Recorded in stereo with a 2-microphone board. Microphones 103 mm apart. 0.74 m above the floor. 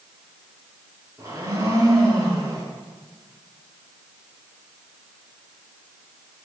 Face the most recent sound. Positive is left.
turn(degrees=-35)  # may be behind; listen again after turning